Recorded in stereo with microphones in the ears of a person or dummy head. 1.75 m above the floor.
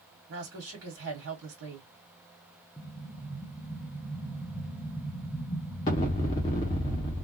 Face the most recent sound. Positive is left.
turn(degrees=15)  # may be behind; listen again after turning